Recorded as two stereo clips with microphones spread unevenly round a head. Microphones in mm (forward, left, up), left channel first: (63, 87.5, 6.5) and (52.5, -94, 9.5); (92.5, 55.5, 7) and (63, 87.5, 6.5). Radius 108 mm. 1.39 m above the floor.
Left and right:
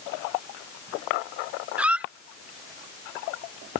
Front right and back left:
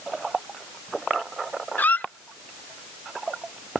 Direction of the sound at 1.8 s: 15° right.